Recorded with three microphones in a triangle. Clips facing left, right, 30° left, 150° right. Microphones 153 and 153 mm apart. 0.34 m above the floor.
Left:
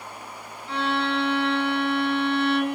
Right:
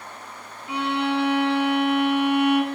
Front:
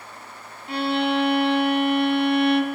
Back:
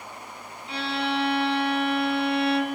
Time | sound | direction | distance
0.7 | a violin | 15° right | 0.6 m